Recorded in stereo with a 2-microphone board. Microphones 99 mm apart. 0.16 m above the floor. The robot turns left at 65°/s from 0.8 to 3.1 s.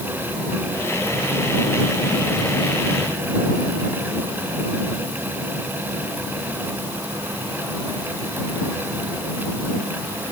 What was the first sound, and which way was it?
Only background noise.